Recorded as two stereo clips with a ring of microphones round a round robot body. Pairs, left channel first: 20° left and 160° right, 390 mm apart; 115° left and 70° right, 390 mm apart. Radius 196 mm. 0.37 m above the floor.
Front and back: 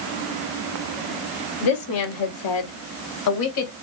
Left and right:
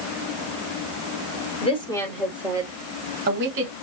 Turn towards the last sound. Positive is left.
turn(degrees=-15)